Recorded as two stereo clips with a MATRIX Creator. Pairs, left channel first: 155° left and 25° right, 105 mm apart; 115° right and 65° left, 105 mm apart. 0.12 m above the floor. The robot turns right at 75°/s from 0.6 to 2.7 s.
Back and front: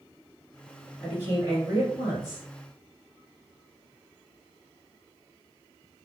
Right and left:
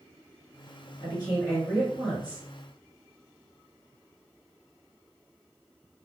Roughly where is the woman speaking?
Right.